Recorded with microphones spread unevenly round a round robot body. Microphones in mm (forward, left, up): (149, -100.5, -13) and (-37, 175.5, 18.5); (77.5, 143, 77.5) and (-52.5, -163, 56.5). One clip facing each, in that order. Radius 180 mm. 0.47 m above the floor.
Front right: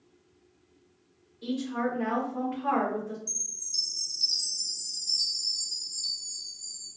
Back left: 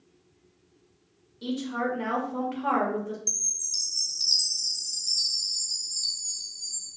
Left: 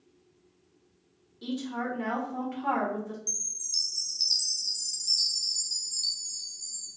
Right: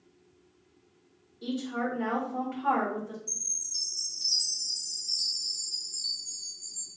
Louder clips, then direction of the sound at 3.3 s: Back left 3 dB, left 1 dB; 75° left.